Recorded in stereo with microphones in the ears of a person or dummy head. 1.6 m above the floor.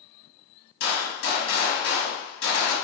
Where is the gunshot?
70° left (ahead or behind), 1.1 m.